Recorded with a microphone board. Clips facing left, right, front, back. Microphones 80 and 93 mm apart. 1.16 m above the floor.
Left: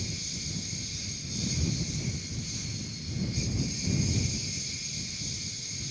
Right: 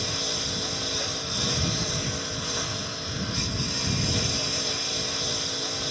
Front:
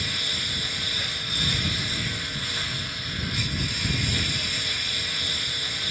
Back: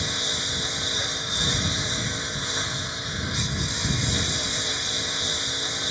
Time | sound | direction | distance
0.0 | a lawn mower | 110° right | ?